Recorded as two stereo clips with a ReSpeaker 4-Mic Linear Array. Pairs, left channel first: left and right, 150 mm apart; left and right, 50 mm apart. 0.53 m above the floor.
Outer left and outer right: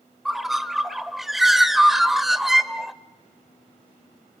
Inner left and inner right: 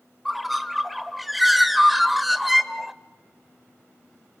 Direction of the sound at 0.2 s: Centre (ahead or behind).